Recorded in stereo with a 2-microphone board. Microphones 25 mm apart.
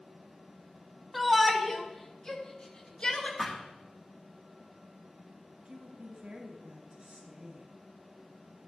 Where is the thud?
10° left (ahead or behind), 6.5 m.